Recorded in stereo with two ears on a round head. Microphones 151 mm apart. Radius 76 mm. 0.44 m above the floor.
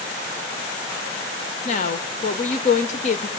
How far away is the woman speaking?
About 1.1 m.